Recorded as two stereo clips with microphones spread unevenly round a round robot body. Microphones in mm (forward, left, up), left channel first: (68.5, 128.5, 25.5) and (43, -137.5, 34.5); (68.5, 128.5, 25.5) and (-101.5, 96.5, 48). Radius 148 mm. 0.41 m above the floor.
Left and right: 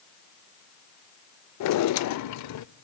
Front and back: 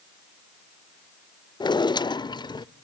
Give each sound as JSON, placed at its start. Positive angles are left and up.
{"t": 1.6, "sound": "a drawer", "azimuth_deg": 75, "distance_m": 0.6}